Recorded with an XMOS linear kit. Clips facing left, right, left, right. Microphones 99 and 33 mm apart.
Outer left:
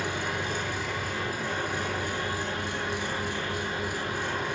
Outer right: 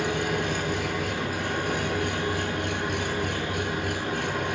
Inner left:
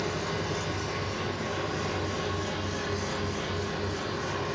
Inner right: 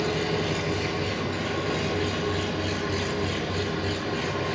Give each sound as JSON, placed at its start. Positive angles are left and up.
{"t": 0.0, "sound": "an engine running", "side_deg": -55, "distance_m": 9.0}